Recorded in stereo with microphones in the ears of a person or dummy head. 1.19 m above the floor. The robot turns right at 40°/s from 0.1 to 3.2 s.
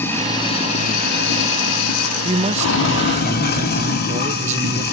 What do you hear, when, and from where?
0.0 s running water: 10° left, 3 m; by 4.9 s 130° left, 3 m
2.2 s a man speaking: 130° right, 0.8 m; by 4.8 s 90° right, 0.8 m